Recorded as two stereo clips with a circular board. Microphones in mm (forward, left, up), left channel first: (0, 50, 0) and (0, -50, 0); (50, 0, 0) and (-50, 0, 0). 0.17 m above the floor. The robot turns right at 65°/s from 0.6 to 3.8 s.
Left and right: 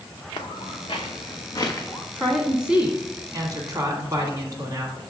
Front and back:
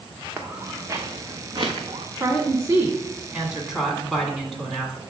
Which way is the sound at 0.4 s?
110° left.